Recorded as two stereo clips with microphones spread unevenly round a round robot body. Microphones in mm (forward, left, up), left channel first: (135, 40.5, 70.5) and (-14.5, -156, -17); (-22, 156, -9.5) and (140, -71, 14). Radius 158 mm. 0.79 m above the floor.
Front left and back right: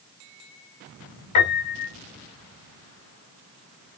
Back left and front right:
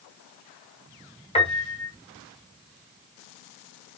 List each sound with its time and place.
1.4 s a piano: 60° left, 2.5 m